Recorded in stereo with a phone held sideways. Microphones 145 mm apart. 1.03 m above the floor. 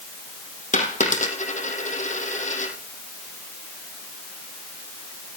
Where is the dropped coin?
55° left (ahead or behind), 4.5 m.